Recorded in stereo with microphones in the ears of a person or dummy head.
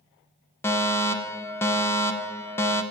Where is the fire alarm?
15° left (ahead or behind), 0.7 m.